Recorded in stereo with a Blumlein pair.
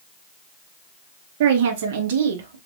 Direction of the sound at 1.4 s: 55° right.